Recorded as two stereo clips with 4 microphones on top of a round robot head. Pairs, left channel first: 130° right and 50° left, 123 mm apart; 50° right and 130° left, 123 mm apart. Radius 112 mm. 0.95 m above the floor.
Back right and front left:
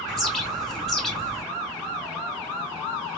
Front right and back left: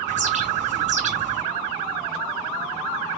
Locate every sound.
0.1 s a bird: 140° left, 2.5 m